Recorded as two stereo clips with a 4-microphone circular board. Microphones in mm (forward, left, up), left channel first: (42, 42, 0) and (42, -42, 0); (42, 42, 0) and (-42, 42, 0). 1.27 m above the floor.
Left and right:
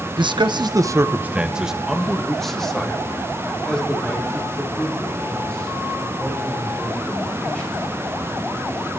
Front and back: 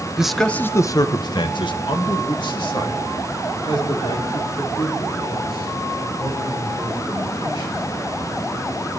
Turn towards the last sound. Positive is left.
turn(degrees=20)